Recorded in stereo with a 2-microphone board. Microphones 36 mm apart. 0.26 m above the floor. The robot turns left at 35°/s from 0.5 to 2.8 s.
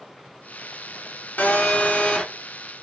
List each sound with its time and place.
1.4 s a phone buzzing: 55° left, 0.7 m; by 2.2 s 25° left, 0.7 m